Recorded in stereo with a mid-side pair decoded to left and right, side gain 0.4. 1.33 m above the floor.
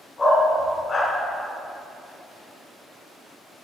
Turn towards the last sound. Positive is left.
turn(degrees=35)